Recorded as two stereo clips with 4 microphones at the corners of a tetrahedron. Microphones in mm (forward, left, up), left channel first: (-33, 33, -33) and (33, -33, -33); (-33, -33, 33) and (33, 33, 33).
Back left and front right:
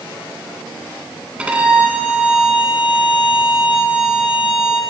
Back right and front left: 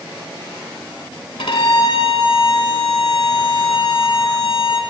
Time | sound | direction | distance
1.4 | a violin | 120° right | 1.0 m